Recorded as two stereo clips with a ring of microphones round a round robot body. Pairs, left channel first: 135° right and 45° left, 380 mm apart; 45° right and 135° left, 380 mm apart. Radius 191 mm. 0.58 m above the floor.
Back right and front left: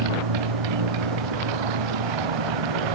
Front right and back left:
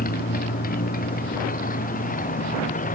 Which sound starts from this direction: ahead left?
A motorcycle, at 0.0 s.